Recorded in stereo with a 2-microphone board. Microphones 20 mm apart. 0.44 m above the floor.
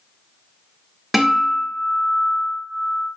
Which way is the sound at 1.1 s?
10° right (ahead or behind).